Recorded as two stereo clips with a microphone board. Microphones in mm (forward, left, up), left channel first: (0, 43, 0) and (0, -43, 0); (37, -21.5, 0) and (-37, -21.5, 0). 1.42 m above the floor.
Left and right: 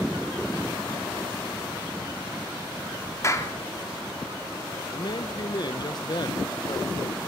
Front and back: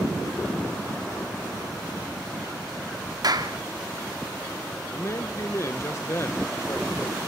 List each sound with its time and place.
3.2 s a clap: 150° left, 3 m
4.9 s a man speaking: 50° left, 1.2 m